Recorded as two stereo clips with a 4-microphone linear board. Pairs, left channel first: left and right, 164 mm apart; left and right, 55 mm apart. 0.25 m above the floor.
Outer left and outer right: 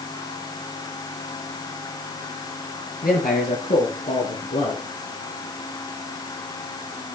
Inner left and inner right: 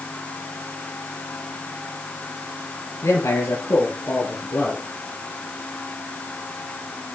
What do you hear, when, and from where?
3.0 s a man speaking: 75° left (ahead or behind), 4 m; by 4.9 s 65° left (ahead or behind), 3 m